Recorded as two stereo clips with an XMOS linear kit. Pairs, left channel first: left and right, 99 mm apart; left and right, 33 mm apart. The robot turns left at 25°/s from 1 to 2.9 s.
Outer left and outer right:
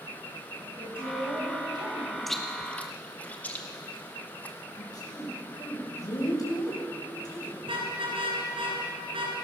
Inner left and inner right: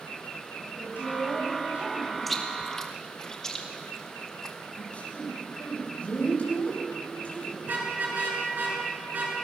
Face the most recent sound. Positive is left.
turn(degrees=-70)  # may be behind; listen again after turning